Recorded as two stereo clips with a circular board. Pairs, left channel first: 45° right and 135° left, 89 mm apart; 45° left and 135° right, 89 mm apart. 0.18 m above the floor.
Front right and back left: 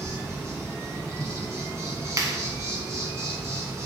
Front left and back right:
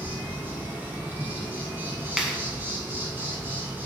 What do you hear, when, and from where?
0.0 s an insect: 170° left, 1.8 m
2.2 s a clap: 145° left, 1.3 m